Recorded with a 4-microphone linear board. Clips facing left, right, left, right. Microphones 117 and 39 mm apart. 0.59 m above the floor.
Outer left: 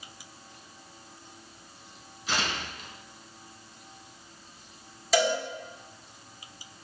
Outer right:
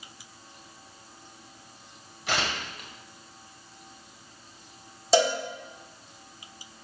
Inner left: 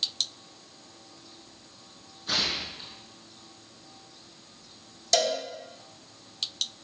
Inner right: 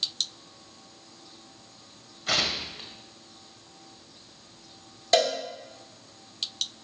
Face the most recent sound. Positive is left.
turn(degrees=-35)  # may be behind; listen again after turning